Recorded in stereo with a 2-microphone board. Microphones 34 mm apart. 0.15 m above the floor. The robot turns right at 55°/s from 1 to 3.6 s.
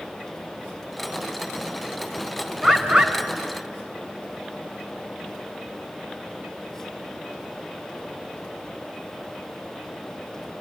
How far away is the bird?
About 2.5 m.